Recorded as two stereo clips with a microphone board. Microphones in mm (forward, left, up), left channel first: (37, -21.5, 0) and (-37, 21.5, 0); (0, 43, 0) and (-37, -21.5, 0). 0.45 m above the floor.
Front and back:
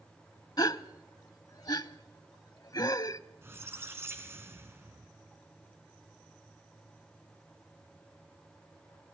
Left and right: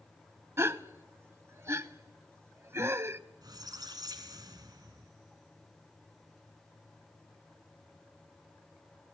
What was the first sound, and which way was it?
A gasp, 70° right.